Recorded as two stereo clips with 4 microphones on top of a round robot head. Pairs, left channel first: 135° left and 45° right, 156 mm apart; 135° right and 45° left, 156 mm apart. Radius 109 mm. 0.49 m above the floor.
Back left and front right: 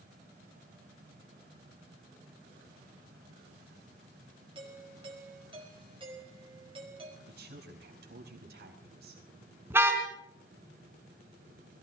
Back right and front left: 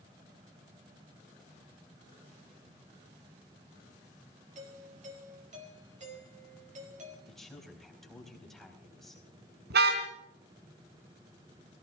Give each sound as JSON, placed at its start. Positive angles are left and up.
{"t": 4.5, "sound": "a doorbell", "azimuth_deg": 10, "distance_m": 5.0}
{"t": 7.3, "sound": "a woman speaking", "azimuth_deg": -45, "distance_m": 4.0}
{"t": 9.7, "sound": "a car horn", "azimuth_deg": 30, "distance_m": 3.0}